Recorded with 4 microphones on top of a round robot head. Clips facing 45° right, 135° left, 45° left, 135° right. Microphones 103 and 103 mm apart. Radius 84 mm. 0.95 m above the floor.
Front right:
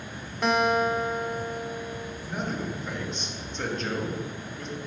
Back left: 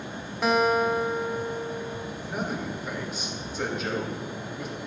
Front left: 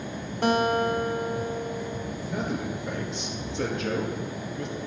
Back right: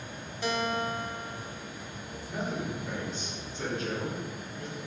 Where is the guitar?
45° left, 0.8 m.